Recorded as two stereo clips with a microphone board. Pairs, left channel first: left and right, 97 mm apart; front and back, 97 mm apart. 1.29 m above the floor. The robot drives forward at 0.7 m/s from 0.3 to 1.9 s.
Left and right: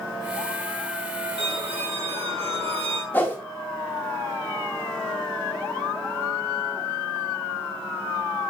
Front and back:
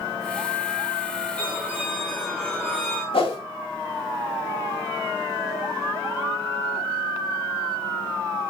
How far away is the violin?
About 3.5 m.